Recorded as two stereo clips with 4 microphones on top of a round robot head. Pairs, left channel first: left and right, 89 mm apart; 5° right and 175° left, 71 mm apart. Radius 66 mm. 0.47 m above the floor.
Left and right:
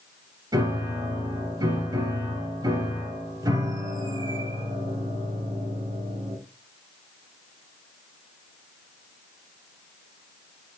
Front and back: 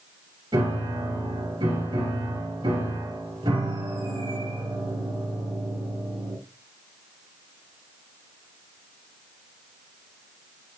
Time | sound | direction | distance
0.5 | a piano | 140° right | 3 m